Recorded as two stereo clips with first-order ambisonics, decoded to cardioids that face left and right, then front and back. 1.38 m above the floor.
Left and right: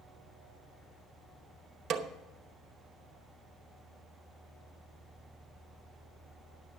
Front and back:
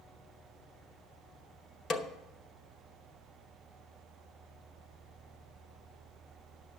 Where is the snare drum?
55° right, 0.8 m.